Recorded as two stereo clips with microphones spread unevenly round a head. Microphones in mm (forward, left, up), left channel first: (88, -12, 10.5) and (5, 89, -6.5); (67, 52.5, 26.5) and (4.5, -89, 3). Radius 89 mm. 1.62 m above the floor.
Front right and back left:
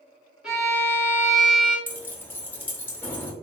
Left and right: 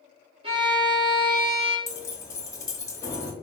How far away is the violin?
About 1.2 m.